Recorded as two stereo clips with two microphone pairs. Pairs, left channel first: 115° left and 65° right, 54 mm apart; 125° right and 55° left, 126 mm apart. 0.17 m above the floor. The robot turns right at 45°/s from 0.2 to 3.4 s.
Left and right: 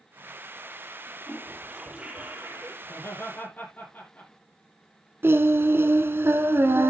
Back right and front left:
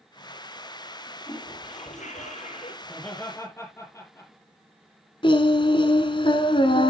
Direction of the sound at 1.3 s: 165° right.